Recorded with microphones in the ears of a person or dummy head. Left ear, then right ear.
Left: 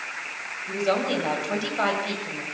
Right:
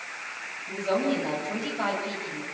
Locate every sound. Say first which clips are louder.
0.7 s a woman speaking: left 2 dB; 50° left (ahead or behind), 7.5 m